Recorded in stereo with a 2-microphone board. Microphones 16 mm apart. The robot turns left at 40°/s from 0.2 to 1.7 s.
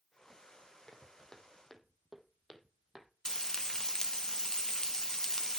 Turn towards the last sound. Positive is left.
turn(degrees=40)  # may be behind; listen again after turning